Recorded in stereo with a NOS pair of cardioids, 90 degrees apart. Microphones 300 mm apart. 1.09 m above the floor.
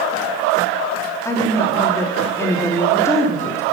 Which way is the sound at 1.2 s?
10° left.